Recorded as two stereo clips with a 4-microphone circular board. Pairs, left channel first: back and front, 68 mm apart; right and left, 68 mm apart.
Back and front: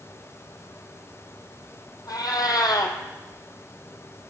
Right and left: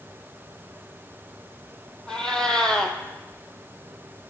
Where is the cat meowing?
170° right, 1.2 m.